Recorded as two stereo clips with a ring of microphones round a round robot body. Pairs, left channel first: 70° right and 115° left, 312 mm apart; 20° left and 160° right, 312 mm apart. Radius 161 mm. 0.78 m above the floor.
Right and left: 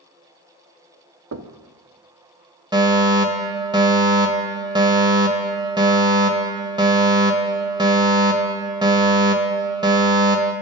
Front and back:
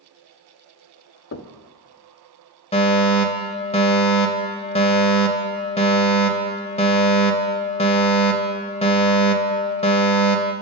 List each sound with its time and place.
1.3 s knocking: 70° left, 1.1 m
2.7 s a fire alarm: 55° left, 1.7 m